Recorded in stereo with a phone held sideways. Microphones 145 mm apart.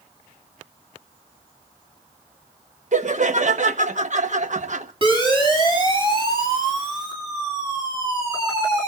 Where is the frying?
No frying in this recording.